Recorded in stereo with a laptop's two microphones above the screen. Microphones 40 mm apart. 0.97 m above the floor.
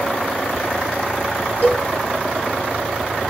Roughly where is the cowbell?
Left.